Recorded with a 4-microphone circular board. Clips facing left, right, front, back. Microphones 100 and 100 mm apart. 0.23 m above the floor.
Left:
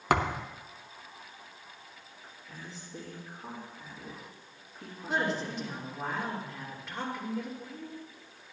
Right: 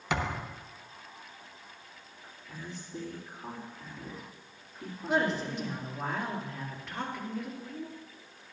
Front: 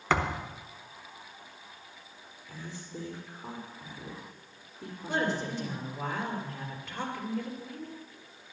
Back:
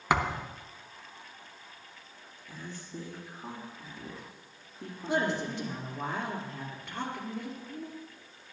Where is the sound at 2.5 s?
Straight behind, 4 m.